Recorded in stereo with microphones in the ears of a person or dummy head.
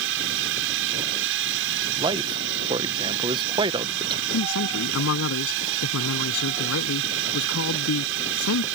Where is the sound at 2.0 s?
25° right (ahead or behind).